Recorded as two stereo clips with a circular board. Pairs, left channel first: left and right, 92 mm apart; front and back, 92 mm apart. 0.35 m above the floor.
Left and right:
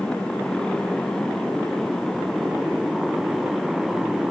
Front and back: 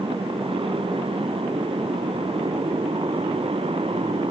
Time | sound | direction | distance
0.0 | a motorcycle | 170° left | ?